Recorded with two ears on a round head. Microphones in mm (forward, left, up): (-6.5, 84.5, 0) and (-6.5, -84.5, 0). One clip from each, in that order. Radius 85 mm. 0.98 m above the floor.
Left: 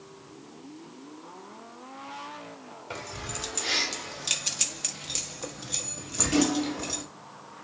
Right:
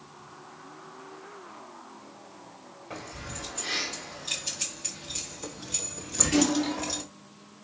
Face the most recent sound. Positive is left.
turn(degrees=-15)  # may be behind; listen again after turning